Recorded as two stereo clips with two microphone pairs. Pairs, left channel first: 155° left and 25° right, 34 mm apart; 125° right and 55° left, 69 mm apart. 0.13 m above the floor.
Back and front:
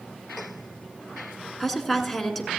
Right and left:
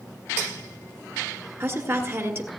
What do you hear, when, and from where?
1.6 s a woman speaking: 70° left, 1.4 m